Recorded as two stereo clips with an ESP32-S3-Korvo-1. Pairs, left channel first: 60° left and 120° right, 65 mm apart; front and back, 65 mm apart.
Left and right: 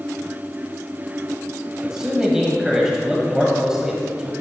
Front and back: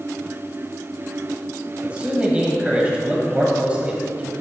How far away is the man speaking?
About 1.5 m.